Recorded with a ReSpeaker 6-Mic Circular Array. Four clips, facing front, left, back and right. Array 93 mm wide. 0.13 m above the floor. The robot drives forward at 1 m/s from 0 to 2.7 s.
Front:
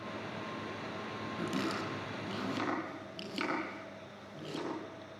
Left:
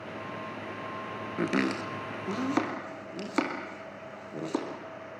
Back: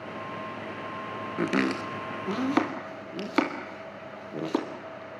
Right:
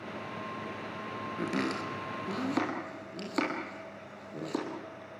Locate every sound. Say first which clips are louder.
1.4 s chopping: left 5 dB, back 10 dB; 150° left, 1.5 m; by 4.7 s 165° left, 2.5 m